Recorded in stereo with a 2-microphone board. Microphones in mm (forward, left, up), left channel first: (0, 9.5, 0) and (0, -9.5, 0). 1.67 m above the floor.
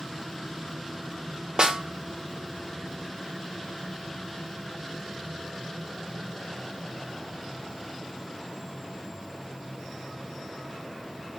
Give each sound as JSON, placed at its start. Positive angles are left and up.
{"t": 1.6, "sound": "a snare drum", "side_deg": -40, "distance_m": 0.7}